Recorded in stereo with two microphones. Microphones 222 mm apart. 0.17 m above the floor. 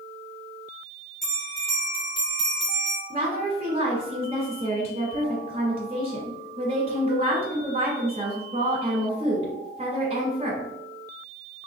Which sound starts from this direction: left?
A bell, at 1.2 s.